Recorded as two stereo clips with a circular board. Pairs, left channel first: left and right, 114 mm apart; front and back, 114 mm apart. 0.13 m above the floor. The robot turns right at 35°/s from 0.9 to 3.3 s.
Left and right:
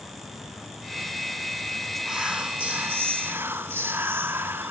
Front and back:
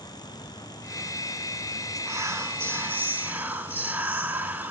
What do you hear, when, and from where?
2.0 s whispering: 170° right, 1.1 m; by 4.7 s 125° right, 1.1 m